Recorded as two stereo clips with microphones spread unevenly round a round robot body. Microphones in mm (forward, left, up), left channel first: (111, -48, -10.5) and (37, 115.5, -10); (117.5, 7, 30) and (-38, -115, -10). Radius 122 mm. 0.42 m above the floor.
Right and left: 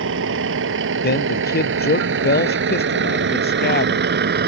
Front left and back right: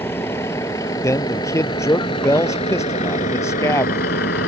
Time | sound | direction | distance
0.0 | a vehicle | 120° left | ?
1.0 | a man speaking | 35° right | ?